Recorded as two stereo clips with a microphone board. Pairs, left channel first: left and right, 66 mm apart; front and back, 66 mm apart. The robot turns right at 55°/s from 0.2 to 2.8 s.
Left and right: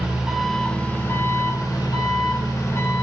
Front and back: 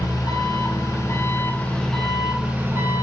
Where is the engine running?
10° right, 1.8 m; by 3.0 s 130° left, 1.8 m.